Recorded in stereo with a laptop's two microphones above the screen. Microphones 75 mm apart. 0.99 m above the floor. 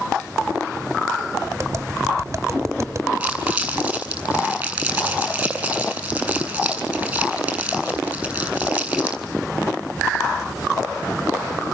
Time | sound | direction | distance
1.6 | tapping | 40° right (ahead or behind) | 2 m
3.2 | crumpling | 15° right (ahead or behind) | 7.5 m